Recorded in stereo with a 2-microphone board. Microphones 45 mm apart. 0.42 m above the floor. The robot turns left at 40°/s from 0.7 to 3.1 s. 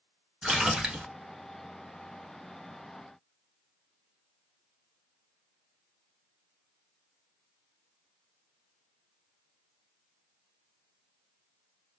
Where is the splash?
10° right (ahead or behind), 0.9 m; by 1.1 s 25° right (ahead or behind), 0.9 m.